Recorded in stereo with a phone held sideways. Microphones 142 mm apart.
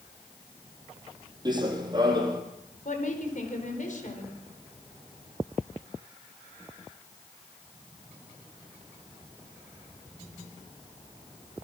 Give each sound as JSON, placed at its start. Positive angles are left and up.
{"t": 1.4, "sound": "running footsteps", "side_deg": -30, "distance_m": 3.0}
{"t": 2.9, "sound": "a woman speaking", "side_deg": 65, "distance_m": 4.5}